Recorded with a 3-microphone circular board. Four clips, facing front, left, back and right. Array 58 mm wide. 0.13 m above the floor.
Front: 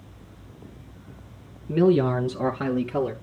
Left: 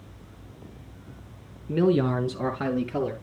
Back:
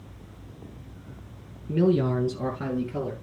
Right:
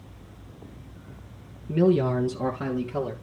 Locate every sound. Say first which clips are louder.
1.7 s a man speaking: right 1 dB, front 3 dB; 35° left, 1.8 m